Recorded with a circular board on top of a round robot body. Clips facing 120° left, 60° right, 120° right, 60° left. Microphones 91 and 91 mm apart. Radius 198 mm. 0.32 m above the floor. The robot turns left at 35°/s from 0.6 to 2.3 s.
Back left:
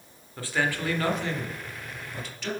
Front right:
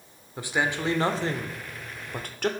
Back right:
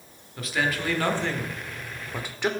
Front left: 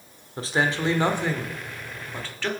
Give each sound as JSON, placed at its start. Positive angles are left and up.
{"t": 0.4, "sound": "a man speaking", "azimuth_deg": 10, "distance_m": 2.0}